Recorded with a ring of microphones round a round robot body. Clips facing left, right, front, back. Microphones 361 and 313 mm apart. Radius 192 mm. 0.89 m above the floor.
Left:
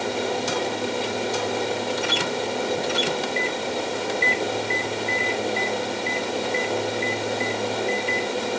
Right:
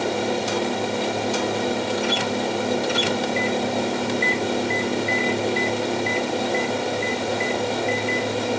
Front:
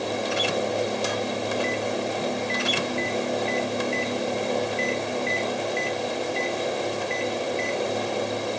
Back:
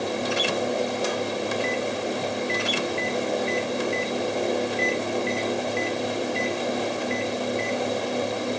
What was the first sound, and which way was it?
Only background noise.